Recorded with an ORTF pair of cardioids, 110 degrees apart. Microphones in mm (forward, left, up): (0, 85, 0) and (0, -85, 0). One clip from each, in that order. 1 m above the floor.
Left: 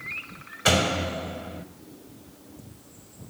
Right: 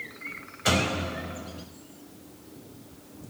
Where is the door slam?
30° left, 3.5 m.